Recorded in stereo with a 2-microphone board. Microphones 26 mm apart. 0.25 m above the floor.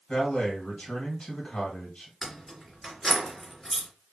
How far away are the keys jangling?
About 2.5 m.